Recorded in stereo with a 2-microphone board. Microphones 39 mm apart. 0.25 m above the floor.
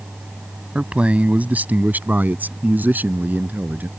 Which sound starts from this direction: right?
A man speaking, at 0.8 s.